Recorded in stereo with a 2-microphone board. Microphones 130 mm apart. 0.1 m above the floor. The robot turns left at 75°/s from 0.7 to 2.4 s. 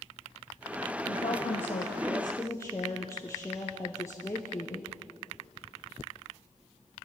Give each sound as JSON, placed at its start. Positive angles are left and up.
{"t": 1.1, "sound": "a woman speaking", "azimuth_deg": 125, "distance_m": 3.0}